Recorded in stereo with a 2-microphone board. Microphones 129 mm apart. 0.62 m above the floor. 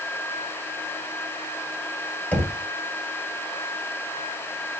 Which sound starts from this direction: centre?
Knocking, at 2.3 s.